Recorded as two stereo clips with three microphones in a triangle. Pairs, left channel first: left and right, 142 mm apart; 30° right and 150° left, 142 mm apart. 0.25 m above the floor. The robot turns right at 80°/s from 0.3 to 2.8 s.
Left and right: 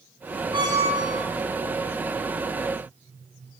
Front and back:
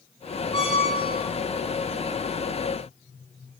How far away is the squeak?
About 1.3 m.